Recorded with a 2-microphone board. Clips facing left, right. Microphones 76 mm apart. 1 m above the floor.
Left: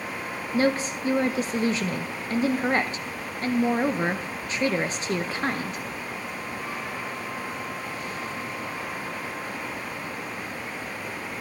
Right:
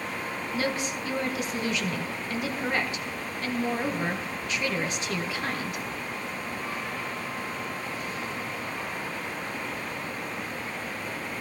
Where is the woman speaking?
35° left (ahead or behind), 0.6 m.